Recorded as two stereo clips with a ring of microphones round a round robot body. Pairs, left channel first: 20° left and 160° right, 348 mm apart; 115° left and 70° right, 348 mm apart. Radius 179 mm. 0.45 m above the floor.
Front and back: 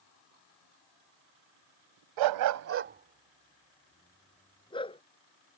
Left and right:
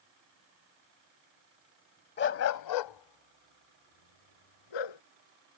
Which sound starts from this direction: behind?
A dog barking, at 2.2 s.